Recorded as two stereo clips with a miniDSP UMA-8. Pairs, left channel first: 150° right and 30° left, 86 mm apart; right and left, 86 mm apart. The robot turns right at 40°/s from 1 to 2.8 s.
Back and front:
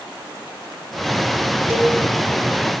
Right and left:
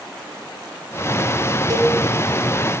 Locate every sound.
1.7 s a cowbell: 90° left, 1.0 m; by 2.0 s 100° left, 1.0 m